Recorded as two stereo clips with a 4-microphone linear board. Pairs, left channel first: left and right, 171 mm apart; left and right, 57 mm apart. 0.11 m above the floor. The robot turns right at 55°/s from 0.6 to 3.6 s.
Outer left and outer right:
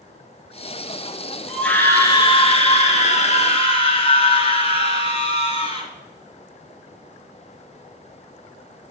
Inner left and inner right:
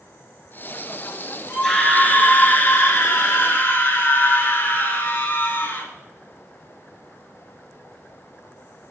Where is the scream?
5° left, 2.0 m; by 5.9 s 120° left, 2.0 m.